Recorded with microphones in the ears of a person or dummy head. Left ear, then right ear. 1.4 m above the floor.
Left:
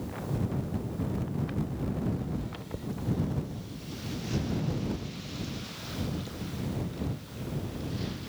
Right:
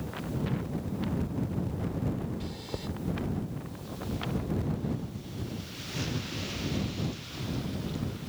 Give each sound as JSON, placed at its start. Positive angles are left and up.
{"t": 2.4, "sound": "chewing", "side_deg": -40}